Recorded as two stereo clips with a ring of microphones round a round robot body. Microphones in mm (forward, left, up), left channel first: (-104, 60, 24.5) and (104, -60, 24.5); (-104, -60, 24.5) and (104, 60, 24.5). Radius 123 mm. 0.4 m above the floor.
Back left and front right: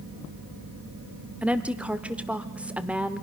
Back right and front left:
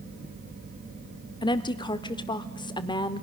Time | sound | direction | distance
1.4 | a woman speaking | 110° right | 0.8 m